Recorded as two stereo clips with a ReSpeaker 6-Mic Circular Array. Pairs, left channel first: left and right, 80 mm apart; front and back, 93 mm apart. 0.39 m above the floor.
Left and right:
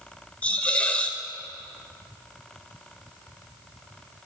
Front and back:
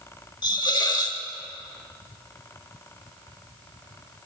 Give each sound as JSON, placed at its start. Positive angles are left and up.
{"t": 0.4, "sound": "a hiss", "azimuth_deg": 20, "distance_m": 1.0}